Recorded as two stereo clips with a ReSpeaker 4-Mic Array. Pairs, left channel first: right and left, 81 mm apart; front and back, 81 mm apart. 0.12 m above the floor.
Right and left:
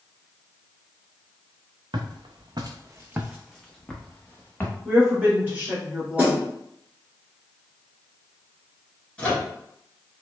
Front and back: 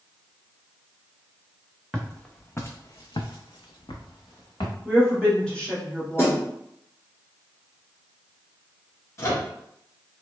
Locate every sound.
1.9 s footsteps: 85° left, 0.7 m; by 4.8 s 25° right, 1.1 m
4.8 s a woman speaking: 55° left, 1.1 m
6.2 s a snare drum: 35° left, 1.2 m
9.2 s a microwave: 20° right, 1.1 m